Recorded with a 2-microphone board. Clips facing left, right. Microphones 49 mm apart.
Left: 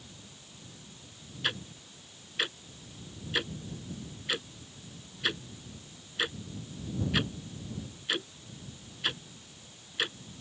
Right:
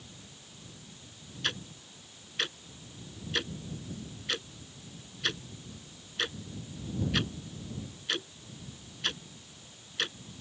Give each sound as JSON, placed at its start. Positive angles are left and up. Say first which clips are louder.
{"t": 1.4, "sound": "ticking", "louder": "left 1 dB", "side_deg": 10}